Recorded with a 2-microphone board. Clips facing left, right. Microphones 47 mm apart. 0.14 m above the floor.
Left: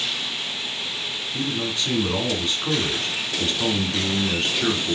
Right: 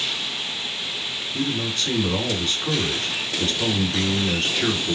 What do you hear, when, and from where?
1.3 s a man speaking: 15° left (ahead or behind), 1.2 m